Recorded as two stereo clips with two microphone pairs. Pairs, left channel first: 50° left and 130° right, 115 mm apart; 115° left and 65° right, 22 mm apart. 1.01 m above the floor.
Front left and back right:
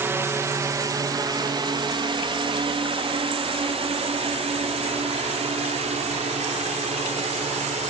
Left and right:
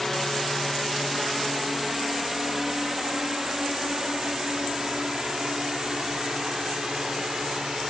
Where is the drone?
170° right; by 7.9 s 125° right.